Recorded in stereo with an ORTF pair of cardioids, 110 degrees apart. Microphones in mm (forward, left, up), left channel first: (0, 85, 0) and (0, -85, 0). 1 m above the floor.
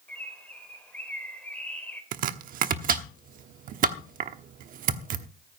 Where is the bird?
10° left, 3.5 m.